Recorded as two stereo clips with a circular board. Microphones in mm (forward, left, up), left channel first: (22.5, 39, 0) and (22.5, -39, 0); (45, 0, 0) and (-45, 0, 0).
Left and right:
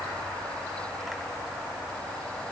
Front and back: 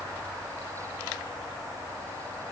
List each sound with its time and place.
Only background noise.